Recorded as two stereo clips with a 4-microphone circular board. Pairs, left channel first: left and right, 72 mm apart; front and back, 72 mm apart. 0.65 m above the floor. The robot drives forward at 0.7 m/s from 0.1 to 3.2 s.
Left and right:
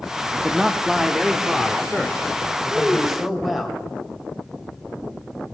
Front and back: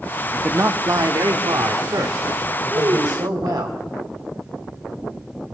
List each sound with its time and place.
0.3 s a man speaking: 155° right, 0.6 m; by 3.7 s 175° right, 2.5 m
2.7 s a child speaking: 175° right, 1.2 m; by 3.6 s straight behind, 1.5 m